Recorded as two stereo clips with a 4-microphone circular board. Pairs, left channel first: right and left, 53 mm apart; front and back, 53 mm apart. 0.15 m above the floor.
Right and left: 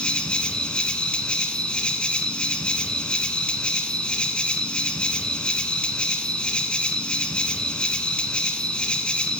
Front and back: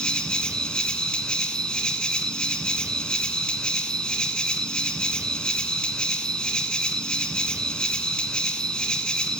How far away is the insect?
About 1.3 m.